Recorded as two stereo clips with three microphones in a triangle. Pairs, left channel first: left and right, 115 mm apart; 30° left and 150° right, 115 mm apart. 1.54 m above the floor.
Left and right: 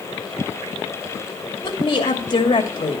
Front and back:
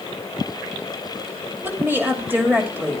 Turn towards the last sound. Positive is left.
turn(degrees=135)